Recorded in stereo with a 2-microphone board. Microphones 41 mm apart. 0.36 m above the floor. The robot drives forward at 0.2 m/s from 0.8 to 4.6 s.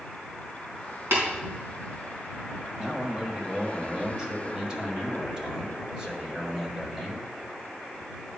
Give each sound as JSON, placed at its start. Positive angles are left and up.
{"t": 1.1, "sound": "tapping", "side_deg": -65, "distance_m": 3.5}
{"t": 2.8, "sound": "a man speaking", "side_deg": -20, "distance_m": 1.4}